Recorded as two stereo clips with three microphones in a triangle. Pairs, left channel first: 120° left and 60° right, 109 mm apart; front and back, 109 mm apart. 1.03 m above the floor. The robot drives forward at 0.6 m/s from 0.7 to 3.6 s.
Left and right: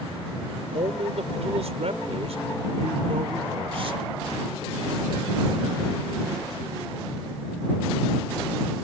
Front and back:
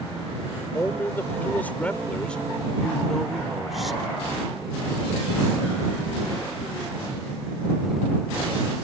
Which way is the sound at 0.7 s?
70° right.